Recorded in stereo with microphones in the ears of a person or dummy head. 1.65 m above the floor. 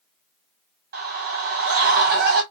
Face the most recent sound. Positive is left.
turn(degrees=-50)  # may be behind; listen again after turning